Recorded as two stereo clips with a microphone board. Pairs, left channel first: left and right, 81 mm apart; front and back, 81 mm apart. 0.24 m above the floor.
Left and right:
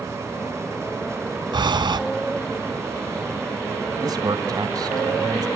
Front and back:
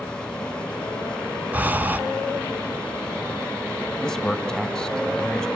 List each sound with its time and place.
1.5 s breathing: 110° right, 0.6 m
4.0 s a man speaking: 80° right, 1.8 m